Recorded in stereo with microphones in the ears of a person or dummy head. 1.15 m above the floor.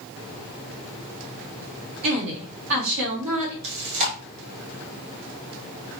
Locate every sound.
2.0 s a woman speaking: 75° right (ahead or behind), 2.5 m
3.6 s chewing: 80° right, 1.8 m